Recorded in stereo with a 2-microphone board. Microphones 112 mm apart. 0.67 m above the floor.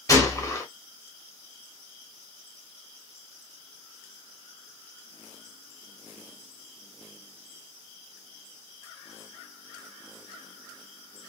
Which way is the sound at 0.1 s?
30° left (ahead or behind).